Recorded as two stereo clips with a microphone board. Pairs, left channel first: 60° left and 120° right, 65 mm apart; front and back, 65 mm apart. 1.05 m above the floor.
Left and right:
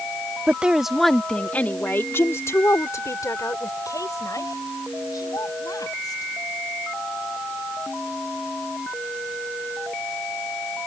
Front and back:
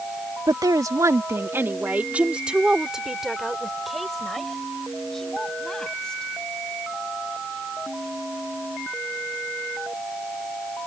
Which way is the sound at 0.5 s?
175° left.